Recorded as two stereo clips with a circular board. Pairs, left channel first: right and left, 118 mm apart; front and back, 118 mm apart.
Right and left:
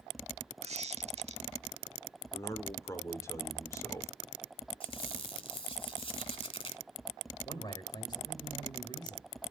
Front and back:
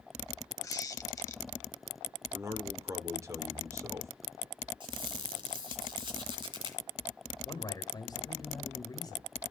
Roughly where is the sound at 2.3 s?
Behind right.